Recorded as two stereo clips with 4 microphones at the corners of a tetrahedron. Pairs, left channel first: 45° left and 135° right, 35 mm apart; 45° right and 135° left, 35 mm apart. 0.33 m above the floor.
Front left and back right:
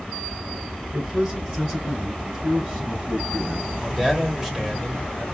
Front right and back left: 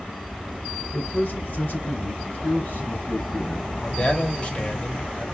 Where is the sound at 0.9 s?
70° right, 3.5 m.